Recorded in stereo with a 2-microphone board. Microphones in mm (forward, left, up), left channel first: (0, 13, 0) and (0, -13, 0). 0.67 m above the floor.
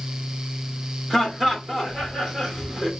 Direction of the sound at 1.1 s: 20° right (ahead or behind).